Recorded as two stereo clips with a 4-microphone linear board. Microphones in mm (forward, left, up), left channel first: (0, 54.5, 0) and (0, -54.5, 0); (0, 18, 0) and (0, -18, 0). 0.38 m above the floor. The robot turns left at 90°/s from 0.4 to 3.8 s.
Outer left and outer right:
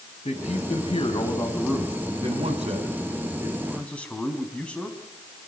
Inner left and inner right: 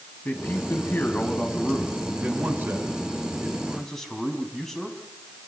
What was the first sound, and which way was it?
A man speaking, 115° left.